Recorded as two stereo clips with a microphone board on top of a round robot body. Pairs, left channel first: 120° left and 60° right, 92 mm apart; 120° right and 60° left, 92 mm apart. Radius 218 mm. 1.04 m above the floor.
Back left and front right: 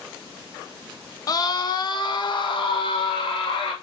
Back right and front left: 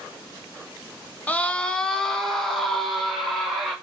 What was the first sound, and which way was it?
A scream, 170° left.